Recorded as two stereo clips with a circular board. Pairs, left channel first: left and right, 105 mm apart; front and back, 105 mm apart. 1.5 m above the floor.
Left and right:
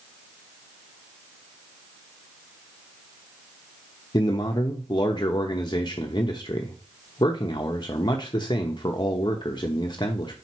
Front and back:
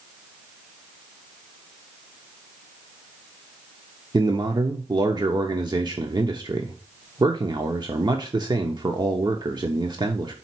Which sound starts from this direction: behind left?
A man speaking, at 4.1 s.